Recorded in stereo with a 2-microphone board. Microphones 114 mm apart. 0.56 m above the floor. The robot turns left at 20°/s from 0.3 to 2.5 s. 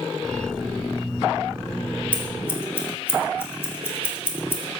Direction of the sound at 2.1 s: 10° left (ahead or behind).